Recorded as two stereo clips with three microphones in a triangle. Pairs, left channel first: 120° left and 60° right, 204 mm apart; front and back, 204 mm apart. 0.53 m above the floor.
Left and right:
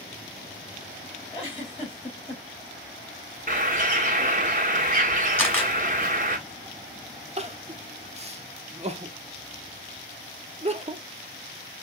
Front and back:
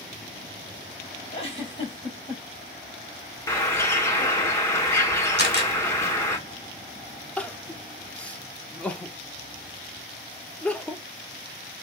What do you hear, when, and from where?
1.3 s a giggle: 60° left, 2.5 m
3.5 s a bird: 70° right, 1.6 m
5.4 s a camera shutter: 40° left, 2.5 m
7.4 s crying: 80° right, 0.7 m